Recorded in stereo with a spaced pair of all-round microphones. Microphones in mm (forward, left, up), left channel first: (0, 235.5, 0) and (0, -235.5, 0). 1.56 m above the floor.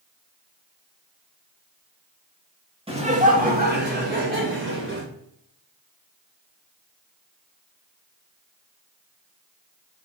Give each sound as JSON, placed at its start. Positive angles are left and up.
{"t": 2.9, "sound": "laughter", "side_deg": -10, "distance_m": 2.0}